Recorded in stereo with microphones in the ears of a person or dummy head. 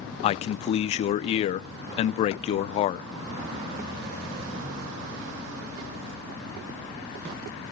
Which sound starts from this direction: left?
A man speaking, at 0.2 s.